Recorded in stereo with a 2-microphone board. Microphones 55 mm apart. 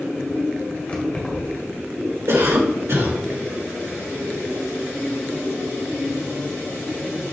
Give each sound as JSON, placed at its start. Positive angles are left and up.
{"t": 0.9, "sound": "keys jangling", "side_deg": 20, "distance_m": 2.5}
{"t": 2.3, "sound": "a cough", "side_deg": -65, "distance_m": 3.0}